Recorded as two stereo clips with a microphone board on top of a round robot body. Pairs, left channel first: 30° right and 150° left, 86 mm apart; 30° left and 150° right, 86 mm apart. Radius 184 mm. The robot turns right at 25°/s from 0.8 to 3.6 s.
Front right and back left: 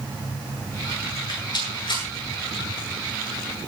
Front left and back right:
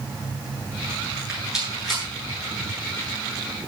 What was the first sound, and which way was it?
A rattle, 75° right.